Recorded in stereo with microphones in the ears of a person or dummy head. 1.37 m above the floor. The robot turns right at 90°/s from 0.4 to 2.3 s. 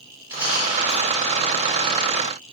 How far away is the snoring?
No snoring in this recording.